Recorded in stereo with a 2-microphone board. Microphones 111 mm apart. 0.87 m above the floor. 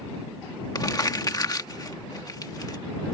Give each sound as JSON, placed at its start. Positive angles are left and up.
{"t": 0.8, "sound": "crumpling", "side_deg": 35}